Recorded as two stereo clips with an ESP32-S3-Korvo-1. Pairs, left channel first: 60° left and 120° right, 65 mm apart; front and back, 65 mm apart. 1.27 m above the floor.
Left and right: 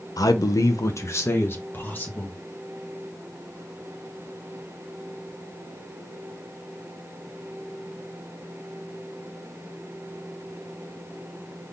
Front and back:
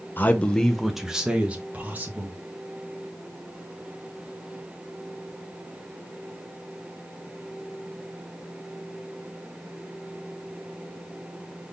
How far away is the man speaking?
About 0.8 m.